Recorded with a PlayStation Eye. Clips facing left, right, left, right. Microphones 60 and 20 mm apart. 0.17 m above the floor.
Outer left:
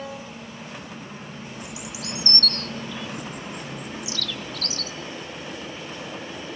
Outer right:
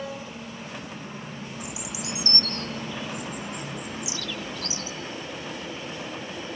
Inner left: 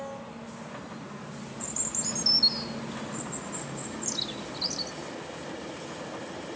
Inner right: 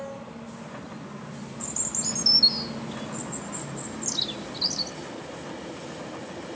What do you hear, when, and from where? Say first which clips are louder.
1.6 s a bird: even, inner right 3 dB; 20° right (ahead or behind), 0.8 m